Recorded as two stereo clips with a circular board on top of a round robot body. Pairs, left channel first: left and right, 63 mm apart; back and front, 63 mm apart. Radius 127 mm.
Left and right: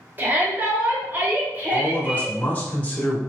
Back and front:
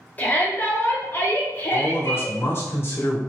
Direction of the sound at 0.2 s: 130° right.